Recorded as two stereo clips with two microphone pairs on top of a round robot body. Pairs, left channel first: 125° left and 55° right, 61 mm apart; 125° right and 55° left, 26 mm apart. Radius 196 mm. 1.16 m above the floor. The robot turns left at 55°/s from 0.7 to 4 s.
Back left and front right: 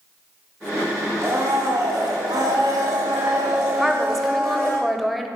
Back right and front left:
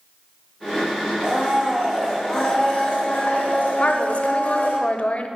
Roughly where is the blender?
Ahead.